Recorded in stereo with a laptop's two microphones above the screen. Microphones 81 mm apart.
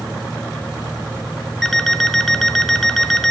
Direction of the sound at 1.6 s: 5° left (ahead or behind).